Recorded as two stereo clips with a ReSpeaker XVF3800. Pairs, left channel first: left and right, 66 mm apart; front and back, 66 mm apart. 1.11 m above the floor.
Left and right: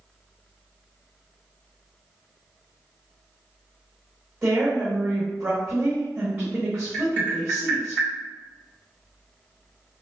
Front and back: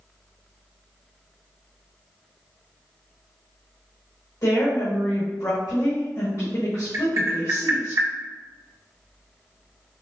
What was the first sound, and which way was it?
A woman speaking, 35° right.